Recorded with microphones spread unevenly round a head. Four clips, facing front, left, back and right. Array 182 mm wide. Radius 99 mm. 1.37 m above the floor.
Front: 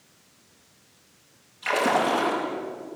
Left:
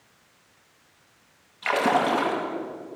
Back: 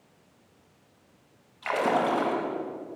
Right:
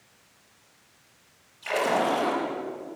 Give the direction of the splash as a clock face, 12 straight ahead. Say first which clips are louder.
Left 3 dB, front 2 dB; 9 o'clock.